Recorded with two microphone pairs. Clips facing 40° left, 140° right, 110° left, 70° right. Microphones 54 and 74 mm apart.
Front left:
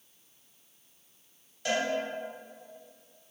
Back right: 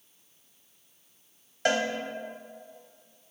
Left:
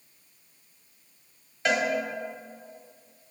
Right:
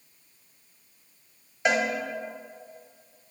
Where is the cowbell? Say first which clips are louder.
Back right 4 dB, right 1 dB; 140° right, 0.7 m.